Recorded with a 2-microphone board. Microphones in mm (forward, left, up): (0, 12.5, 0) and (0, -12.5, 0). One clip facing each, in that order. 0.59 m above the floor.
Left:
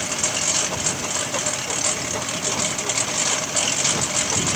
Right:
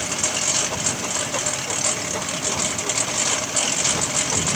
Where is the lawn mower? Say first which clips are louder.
Even; 10° left (ahead or behind); by 4.6 s 15° left (ahead or behind).